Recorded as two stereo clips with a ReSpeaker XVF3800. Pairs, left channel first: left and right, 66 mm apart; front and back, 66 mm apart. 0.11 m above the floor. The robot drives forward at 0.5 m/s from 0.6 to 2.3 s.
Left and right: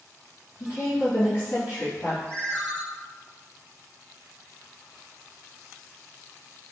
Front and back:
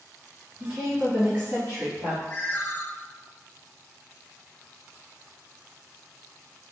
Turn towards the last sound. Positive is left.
turn(degrees=30)